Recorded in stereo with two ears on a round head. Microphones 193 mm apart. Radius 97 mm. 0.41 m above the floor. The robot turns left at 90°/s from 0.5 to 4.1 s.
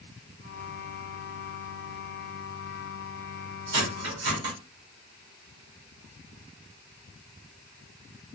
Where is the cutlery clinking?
60° right (ahead or behind), 1.5 m; by 4.5 s 65° right (ahead or behind), 1.5 m.